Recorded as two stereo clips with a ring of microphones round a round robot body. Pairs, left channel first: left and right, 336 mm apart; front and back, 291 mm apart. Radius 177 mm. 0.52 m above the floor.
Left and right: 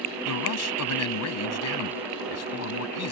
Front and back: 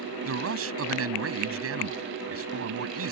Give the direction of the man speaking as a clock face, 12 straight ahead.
7 o'clock.